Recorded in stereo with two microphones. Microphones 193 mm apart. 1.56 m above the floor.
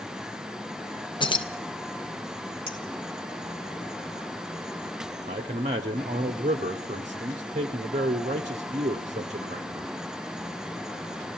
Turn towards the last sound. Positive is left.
turn(degrees=-35)  # may be behind; listen again after turning